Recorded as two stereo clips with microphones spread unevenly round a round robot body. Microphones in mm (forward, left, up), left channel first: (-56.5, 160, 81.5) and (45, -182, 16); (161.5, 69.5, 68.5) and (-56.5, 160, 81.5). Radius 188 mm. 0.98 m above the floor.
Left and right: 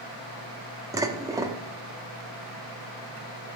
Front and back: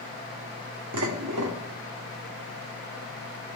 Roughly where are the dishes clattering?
Behind right.